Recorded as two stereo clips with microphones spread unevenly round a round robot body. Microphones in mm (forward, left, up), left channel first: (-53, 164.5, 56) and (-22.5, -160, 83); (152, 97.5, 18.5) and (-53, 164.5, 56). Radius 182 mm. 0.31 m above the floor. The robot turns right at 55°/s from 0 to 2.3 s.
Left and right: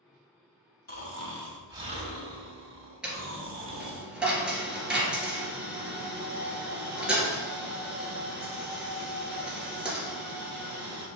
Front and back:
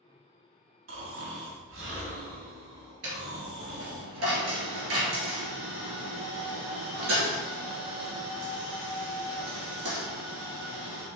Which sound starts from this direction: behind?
A dropped coin, at 3.0 s.